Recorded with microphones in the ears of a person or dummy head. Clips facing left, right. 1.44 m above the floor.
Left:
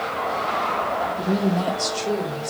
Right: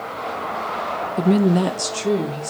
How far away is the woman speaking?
About 0.7 m.